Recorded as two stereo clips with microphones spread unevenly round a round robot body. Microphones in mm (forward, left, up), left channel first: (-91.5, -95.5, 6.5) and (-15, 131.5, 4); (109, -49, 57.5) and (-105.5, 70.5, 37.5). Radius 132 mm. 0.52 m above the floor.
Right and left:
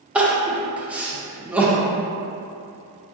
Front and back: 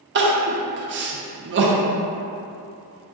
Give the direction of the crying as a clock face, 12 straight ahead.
7 o'clock.